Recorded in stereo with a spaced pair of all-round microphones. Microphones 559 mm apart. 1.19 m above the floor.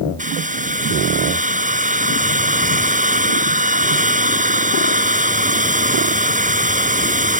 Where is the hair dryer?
15° right (ahead or behind).